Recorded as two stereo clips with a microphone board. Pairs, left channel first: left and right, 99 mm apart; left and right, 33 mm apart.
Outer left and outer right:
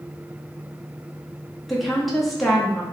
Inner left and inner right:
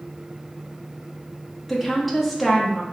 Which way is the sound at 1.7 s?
Centre (ahead or behind).